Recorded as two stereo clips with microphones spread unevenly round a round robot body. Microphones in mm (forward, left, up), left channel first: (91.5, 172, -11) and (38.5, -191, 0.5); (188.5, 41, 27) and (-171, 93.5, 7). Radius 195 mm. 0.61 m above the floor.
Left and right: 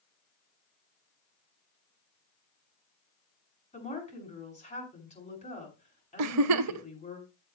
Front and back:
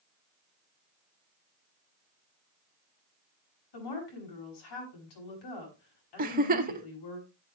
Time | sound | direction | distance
3.7 | a woman speaking | 10° left | 7 m
6.2 | a giggle | 125° right | 0.5 m